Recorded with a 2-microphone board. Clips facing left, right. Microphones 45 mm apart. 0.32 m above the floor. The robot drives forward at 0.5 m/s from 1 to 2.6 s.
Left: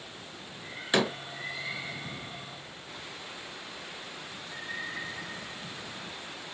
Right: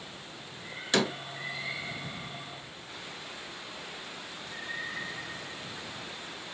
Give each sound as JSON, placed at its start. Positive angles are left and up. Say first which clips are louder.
{"t": 0.9, "sound": "a door slam", "louder": "left 1 dB", "side_deg": 15, "distance_m": 0.5}